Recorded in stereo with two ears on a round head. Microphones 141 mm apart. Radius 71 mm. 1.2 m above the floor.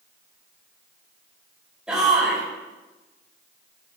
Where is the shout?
5° right (ahead or behind), 5 m.